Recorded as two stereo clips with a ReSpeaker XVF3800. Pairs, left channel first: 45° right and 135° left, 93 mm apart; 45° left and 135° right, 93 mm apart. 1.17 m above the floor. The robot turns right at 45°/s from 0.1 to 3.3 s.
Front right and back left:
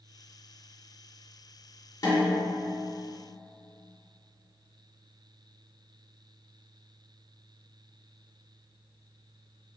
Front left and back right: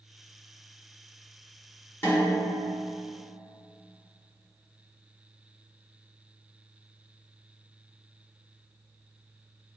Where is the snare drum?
10° right, 1.2 m; by 2.5 s 10° left, 1.2 m.